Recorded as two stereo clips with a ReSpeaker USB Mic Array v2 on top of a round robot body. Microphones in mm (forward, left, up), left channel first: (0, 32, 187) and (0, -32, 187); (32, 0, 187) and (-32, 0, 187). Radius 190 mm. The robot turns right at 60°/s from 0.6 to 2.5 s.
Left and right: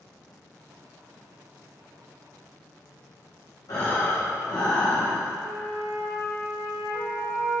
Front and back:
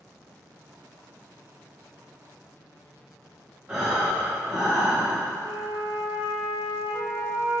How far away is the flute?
About 0.6 m.